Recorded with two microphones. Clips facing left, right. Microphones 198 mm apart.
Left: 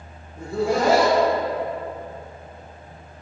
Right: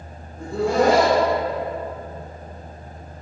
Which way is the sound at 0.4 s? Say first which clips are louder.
Right 2 dB; 5° left (ahead or behind).